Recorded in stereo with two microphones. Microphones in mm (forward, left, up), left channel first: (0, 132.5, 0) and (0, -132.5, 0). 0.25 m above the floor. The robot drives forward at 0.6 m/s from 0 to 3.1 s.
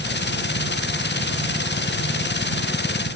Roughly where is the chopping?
I don't hear chopping.